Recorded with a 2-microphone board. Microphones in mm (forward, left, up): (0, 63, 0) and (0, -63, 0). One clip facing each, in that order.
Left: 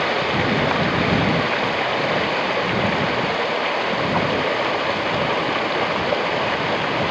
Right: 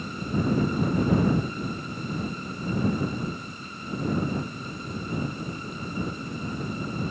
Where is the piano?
No piano in this recording.